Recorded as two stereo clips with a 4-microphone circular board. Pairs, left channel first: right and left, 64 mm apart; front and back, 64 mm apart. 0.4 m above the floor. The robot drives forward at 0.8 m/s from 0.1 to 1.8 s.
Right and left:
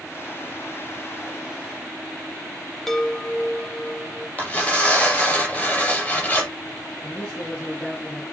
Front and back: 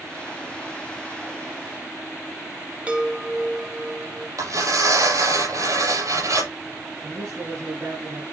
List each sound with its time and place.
2.9 s a chime: 165° right, 1.5 m
4.4 s tearing paper: 155° right, 7 m
7.0 s a man speaking: 165° right, 6 m